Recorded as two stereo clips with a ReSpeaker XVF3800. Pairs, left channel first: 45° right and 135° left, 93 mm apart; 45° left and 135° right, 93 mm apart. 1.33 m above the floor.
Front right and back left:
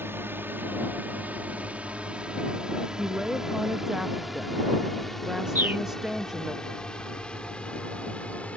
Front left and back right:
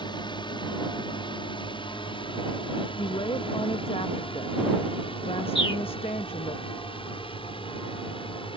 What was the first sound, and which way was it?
A drone, 70° left.